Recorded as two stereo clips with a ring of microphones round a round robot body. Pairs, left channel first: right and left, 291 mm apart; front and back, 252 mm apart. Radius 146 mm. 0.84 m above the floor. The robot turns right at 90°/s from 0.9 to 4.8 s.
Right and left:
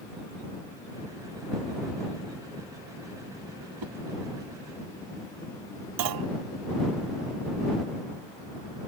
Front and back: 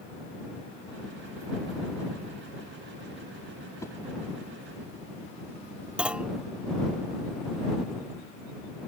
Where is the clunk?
95° left.